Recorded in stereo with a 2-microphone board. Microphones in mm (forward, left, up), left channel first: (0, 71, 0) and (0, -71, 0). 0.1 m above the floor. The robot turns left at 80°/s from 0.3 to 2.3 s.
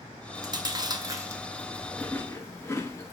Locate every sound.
0.3 s chewing: 25° right (ahead or behind), 1.3 m; by 3.1 s 20° left (ahead or behind), 1.3 m